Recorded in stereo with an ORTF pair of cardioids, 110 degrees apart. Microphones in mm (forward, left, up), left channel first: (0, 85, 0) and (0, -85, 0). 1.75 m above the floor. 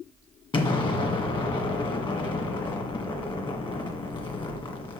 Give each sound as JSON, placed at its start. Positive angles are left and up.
{"t": 0.5, "sound": "an explosion", "azimuth_deg": 30, "distance_m": 1.8}